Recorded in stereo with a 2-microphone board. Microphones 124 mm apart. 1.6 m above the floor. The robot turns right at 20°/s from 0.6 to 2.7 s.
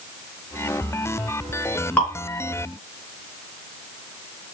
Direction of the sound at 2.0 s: 15° left (ahead or behind).